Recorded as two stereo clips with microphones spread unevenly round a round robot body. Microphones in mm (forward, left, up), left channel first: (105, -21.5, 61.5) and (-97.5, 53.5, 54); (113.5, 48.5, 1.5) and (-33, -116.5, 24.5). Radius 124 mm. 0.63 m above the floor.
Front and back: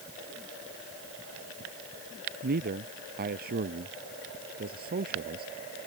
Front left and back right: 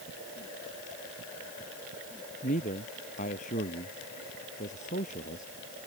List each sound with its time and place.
2.4 s a man speaking: 110° left